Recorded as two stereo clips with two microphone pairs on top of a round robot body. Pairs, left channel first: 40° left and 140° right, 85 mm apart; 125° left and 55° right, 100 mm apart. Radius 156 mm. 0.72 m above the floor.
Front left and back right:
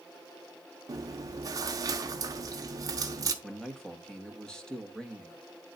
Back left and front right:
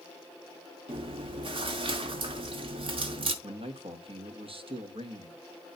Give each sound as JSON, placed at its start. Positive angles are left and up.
{"t": 0.9, "sound": "chewing", "azimuth_deg": -90, "distance_m": 0.8}
{"t": 3.4, "sound": "a man speaking", "azimuth_deg": -45, "distance_m": 1.8}